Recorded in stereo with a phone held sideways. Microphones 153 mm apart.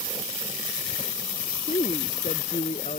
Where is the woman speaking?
50° left (ahead or behind); by 3.0 s 55° left (ahead or behind).